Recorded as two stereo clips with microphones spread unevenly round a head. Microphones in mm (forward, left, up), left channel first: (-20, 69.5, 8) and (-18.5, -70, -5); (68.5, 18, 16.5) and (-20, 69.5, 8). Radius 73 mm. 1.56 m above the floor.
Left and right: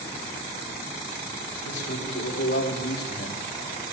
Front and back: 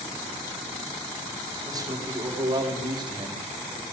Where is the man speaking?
95° left, 4 m; by 3.9 s 115° left, 3 m.